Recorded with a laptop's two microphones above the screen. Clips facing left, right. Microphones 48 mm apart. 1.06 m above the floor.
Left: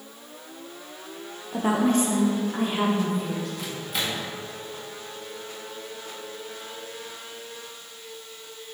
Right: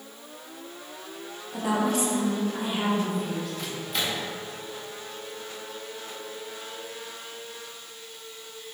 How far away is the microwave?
About 1.6 m.